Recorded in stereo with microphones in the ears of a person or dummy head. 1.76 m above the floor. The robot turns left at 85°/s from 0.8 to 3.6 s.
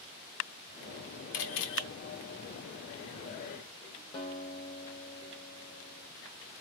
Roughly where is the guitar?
Left.